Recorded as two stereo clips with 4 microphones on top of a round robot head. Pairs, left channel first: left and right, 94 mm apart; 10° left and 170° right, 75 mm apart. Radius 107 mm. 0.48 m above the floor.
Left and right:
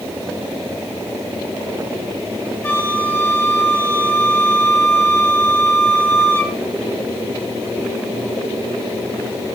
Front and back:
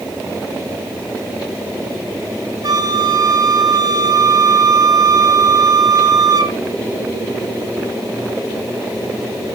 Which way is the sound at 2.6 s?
160° left.